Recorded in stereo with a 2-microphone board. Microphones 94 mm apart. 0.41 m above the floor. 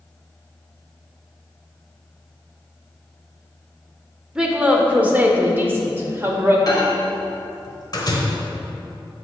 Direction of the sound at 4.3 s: 10° right (ahead or behind).